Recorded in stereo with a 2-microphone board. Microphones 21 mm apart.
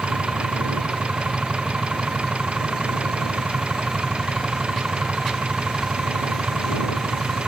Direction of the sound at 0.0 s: 60° right (ahead or behind).